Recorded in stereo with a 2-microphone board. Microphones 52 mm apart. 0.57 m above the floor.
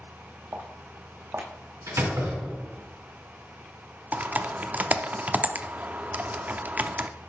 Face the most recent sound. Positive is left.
turn(degrees=-30)  # may be behind; listen again after turning